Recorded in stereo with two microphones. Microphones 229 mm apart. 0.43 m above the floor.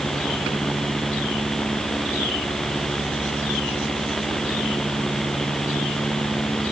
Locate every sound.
Only background noise.